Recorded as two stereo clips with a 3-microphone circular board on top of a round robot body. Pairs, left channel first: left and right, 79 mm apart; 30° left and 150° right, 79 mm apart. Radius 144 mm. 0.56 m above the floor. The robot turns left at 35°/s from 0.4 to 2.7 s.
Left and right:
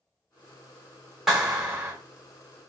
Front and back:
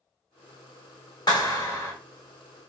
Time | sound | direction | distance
1.3 | a clap | 5° right | 1.8 m